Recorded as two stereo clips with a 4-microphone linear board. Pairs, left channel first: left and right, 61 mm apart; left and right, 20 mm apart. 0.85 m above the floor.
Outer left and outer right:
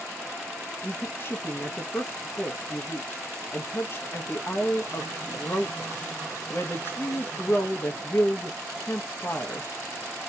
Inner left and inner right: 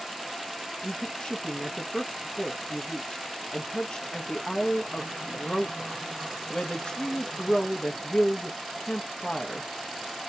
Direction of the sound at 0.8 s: 40° left (ahead or behind).